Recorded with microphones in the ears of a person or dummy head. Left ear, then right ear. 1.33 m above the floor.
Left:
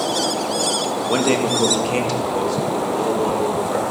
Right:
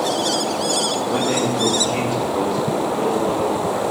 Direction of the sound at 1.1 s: 65° left (ahead or behind).